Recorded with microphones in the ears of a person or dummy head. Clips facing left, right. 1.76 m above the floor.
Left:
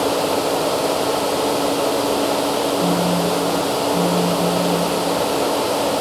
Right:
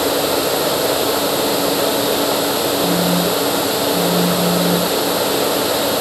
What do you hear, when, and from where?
2.8 s a phone buzzing: 5° left (ahead or behind), 1.0 m